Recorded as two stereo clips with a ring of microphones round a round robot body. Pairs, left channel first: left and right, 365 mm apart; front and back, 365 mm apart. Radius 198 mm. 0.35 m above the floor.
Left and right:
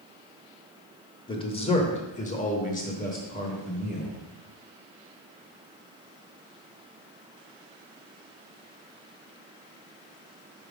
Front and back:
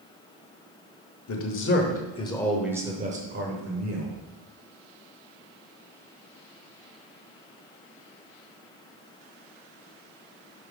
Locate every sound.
1.3 s a man speaking: 20° left, 1.1 m; by 4.2 s 160° left, 1.3 m